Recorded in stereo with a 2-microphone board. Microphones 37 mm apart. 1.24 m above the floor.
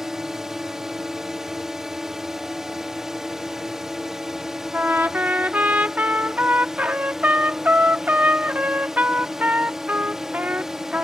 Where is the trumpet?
50° right (ahead or behind).